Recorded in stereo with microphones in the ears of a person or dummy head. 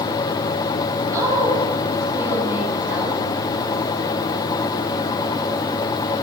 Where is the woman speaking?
15° right (ahead or behind), 2.5 m; by 3.2 s 5° right (ahead or behind), 1.8 m.